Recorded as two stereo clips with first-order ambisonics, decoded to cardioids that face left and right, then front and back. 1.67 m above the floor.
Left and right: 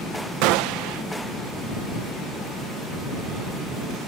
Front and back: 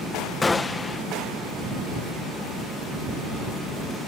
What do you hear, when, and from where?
0.4 s a gunshot: 80° right